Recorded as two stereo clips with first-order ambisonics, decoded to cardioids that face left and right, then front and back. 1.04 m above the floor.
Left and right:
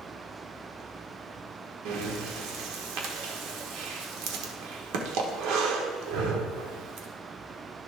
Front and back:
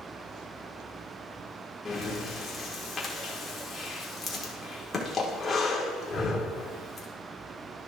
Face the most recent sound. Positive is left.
turn(degrees=-75)